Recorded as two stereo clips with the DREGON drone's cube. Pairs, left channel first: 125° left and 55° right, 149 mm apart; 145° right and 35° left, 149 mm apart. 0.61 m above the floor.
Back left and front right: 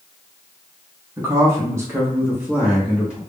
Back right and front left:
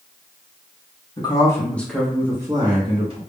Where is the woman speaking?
115° right, 1.1 m; by 3.2 s 25° left, 1.2 m.